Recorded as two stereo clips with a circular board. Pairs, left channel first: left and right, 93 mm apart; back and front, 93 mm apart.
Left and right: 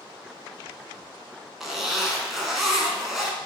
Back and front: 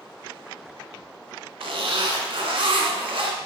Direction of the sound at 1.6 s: Straight ahead.